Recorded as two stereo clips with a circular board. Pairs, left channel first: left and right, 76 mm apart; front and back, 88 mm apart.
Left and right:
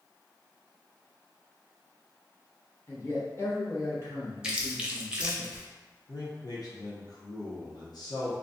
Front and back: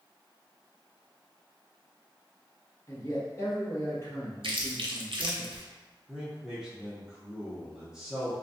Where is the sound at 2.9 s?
45° left, 1.0 m.